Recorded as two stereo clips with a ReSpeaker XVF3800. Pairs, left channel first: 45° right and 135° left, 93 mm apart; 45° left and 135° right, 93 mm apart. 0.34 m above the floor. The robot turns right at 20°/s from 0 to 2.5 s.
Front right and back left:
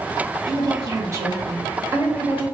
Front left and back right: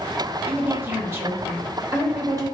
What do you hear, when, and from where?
0.5 s a woman speaking: 160° left, 1.1 m; by 2.5 s 160° right, 1.1 m